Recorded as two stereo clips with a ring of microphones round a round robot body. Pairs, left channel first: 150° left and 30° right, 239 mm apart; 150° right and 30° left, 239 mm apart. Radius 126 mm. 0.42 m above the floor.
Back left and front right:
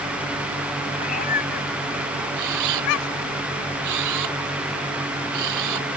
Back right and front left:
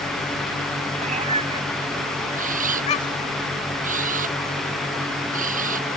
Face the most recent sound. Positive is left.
turn(degrees=-30)